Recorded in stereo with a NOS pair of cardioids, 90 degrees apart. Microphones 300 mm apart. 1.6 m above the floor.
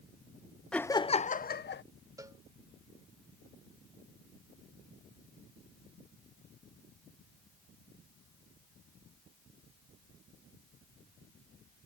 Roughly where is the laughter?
Ahead.